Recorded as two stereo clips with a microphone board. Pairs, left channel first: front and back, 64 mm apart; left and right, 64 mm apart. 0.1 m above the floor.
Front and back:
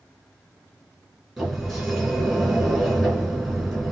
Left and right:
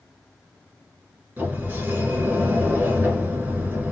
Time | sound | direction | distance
1.4 | a sliding door | 95° right | 1.6 m